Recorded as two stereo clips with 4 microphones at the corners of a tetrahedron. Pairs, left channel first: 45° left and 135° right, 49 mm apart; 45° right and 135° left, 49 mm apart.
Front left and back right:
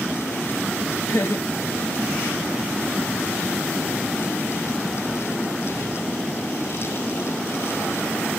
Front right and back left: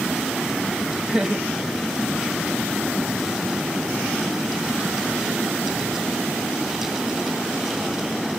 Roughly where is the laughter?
Ahead left.